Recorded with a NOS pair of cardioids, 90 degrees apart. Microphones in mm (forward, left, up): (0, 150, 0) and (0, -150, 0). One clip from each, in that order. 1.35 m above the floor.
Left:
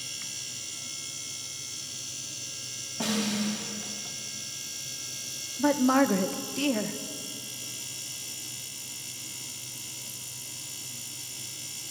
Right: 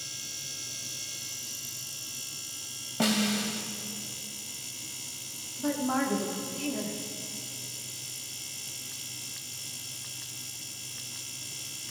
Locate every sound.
3.0 s a snare drum: 40° right, 2 m
5.6 s a woman speaking: 50° left, 1.1 m